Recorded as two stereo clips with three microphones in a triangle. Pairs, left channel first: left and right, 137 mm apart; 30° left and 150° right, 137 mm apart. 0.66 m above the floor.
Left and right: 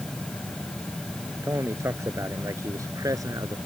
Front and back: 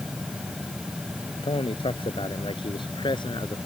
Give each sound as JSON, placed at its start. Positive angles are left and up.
{"t": 1.4, "sound": "a man speaking", "azimuth_deg": -20}